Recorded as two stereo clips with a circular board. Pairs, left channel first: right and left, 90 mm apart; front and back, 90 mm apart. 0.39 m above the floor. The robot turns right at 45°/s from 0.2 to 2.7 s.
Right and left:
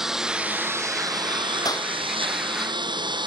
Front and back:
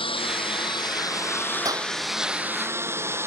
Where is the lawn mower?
5° left; by 3.3 s 120° left.